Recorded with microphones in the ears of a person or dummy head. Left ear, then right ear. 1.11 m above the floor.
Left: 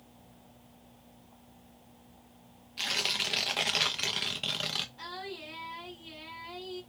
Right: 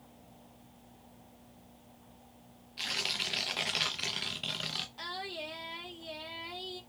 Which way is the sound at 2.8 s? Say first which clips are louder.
Left 3 dB; 10° left (ahead or behind).